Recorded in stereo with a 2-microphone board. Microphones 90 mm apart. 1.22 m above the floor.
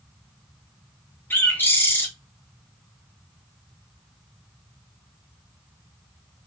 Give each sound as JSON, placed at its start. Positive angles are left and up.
{"t": 1.3, "sound": "a bird", "side_deg": 25, "distance_m": 0.8}